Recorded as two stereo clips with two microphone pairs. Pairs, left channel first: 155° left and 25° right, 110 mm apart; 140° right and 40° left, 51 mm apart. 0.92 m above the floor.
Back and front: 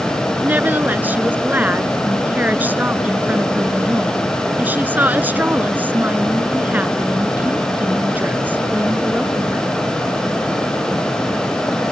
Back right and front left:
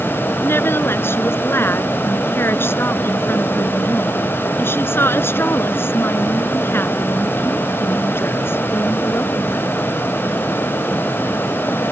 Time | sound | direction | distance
0.4 | a woman speaking | 100° right | ?